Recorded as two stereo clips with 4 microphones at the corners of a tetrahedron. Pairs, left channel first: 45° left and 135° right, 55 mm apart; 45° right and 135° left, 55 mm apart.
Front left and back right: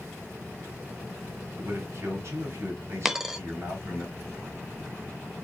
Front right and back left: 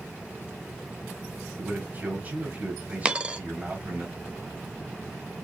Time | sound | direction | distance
1.6 | a man speaking | 165° right | 3 m
3.0 | a dropped coin | 160° left | 0.7 m